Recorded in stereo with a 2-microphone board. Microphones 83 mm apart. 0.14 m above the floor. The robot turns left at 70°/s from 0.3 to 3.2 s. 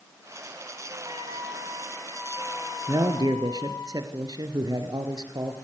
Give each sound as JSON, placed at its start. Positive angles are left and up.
{"t": 1.1, "sound": "a trumpet", "azimuth_deg": -110, "distance_m": 6.0}
{"t": 2.9, "sound": "a man speaking", "side_deg": -55, "distance_m": 2.5}